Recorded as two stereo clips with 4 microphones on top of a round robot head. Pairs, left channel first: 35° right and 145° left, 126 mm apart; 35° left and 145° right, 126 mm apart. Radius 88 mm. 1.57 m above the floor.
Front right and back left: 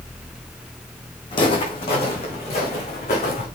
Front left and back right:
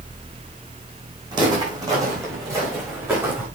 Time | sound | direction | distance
1.3 | footsteps | 90° right | 4 m